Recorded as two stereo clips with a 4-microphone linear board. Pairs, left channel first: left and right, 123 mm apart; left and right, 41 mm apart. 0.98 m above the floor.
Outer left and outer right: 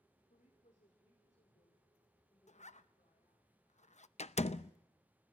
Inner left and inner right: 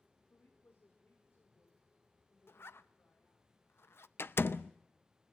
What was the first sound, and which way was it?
A woman speaking, 80° left.